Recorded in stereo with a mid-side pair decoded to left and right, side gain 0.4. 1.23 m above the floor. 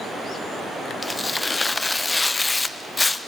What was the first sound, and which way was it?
Tearing paper, 25° left.